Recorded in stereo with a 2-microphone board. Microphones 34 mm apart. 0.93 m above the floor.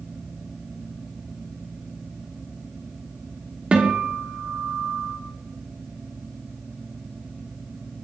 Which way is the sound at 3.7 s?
35° right (ahead or behind).